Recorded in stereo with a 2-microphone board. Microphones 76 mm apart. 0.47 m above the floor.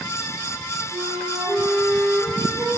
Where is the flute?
65° right (ahead or behind), 5.5 m.